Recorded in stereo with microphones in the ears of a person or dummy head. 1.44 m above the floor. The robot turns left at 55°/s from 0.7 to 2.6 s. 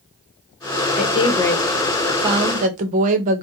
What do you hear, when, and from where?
1.0 s a woman speaking: 45° left, 1.1 m; by 3.4 s 45° right, 1.1 m